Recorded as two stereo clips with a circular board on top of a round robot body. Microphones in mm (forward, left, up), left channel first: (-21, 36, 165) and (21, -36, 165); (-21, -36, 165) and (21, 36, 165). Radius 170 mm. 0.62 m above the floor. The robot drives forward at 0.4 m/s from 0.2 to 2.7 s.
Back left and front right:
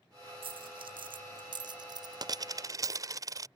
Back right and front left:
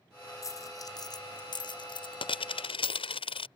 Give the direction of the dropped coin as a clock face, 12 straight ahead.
2 o'clock.